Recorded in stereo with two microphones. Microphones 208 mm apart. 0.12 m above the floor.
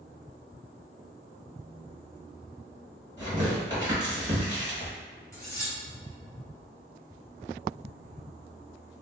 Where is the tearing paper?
15° right (ahead or behind), 1.8 m.